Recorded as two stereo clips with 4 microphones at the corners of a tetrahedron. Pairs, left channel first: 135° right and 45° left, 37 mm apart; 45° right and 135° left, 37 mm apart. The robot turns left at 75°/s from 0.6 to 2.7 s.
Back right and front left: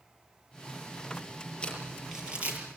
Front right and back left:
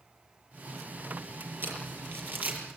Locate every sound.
1.6 s crumpling: 160° left, 7 m; by 2.6 s 90° left, 7 m